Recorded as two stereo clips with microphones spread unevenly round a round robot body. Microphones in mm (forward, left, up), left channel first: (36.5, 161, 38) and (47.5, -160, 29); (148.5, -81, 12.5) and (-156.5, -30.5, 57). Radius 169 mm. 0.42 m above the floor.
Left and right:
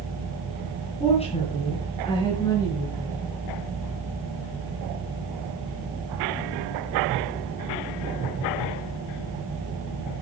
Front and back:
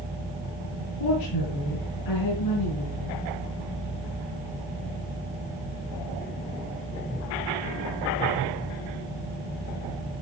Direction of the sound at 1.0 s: 20° left.